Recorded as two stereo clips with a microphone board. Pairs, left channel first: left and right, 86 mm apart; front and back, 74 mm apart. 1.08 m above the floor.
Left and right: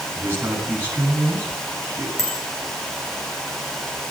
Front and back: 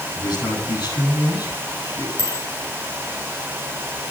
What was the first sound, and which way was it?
A man speaking, 25° right.